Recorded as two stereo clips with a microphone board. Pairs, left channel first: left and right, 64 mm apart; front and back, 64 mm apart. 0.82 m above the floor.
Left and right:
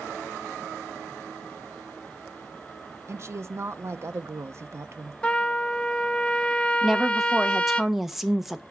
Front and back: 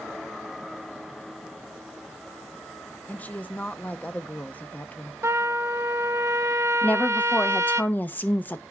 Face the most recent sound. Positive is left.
turn(degrees=-5)